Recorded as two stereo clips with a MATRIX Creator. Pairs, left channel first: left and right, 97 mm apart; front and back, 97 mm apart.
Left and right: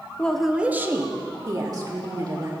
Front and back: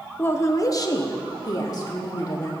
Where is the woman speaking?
35° left, 0.6 m; by 2.5 s 50° right, 2.0 m.